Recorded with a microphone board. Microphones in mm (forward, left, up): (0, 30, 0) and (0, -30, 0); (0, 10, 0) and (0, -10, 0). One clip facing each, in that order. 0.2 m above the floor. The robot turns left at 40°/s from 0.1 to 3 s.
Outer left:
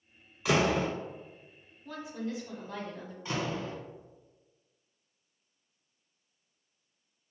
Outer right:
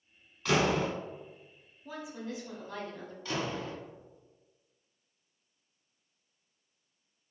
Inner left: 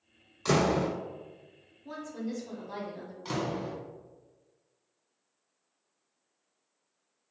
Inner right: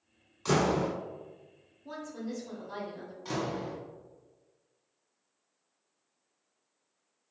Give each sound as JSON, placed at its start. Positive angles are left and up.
{"t": 0.5, "sound": "a door slam", "side_deg": 5, "distance_m": 1.3}
{"t": 1.9, "sound": "a woman speaking", "side_deg": -10, "distance_m": 1.4}
{"t": 3.2, "sound": "a door slam", "side_deg": 20, "distance_m": 1.4}